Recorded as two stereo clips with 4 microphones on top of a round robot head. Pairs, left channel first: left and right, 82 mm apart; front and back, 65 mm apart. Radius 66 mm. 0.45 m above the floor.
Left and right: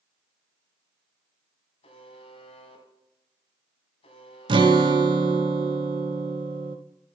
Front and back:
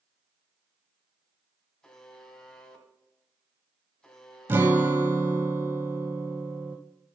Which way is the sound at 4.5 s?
115° right.